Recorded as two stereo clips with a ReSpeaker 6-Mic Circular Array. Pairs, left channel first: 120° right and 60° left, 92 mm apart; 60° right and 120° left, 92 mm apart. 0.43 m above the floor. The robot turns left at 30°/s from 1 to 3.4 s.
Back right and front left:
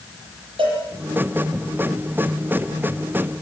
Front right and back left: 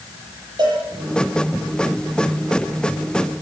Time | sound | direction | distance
0.6 | a cowbell | 80° left | 8.5 m